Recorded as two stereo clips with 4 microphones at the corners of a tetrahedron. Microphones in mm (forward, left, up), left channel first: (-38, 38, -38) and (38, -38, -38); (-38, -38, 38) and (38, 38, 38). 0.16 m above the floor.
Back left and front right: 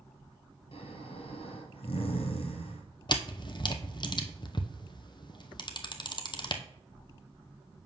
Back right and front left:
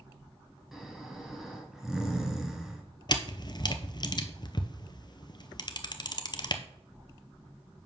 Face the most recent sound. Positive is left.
turn(degrees=180)